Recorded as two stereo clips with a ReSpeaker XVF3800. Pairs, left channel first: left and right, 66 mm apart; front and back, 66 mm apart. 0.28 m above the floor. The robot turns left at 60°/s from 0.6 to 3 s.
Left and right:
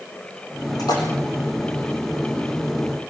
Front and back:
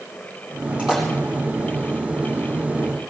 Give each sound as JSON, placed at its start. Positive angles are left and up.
{"t": 0.8, "sound": "a splash", "azimuth_deg": 105, "distance_m": 7.0}